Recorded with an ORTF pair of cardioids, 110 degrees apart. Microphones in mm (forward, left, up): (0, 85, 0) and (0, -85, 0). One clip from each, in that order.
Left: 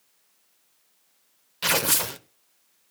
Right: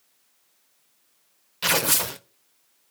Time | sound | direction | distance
1.6 | tearing paper | straight ahead | 0.7 m